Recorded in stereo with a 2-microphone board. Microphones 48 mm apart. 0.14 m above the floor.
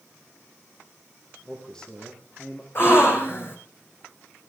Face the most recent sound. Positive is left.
turn(degrees=45)  # may be behind; listen again after turning